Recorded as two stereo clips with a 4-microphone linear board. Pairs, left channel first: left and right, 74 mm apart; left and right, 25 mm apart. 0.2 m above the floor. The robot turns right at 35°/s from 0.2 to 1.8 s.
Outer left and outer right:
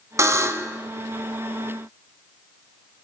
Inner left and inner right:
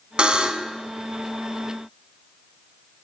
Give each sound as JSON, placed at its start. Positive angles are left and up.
{"t": 0.2, "sound": "a buzzer", "side_deg": -45, "distance_m": 0.7}